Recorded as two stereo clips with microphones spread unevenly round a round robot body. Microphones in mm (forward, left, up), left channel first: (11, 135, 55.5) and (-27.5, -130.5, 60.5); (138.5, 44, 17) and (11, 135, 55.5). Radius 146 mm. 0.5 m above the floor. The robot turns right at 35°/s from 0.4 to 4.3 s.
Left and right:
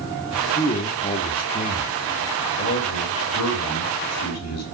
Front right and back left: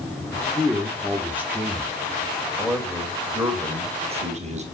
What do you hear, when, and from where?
0.6 s a man speaking: 20° left, 1.1 m; by 1.9 s 65° left, 1.1 m
2.6 s a man speaking: 35° left, 2.5 m; by 4.6 s 95° left, 2.5 m